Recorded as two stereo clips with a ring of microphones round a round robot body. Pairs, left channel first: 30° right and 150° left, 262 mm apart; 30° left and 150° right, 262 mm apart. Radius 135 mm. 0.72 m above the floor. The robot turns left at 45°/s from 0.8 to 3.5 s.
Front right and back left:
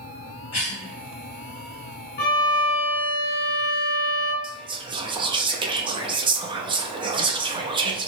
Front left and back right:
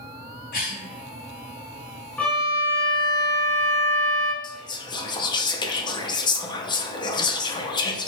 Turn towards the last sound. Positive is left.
turn(degrees=90)